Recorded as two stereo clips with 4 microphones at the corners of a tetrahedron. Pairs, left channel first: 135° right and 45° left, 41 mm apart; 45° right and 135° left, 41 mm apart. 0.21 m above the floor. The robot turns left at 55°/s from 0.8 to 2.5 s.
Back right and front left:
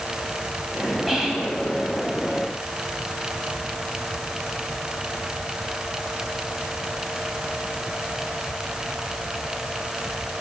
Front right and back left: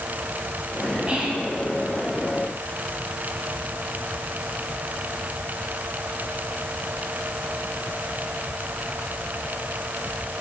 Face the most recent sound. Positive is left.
turn(degrees=50)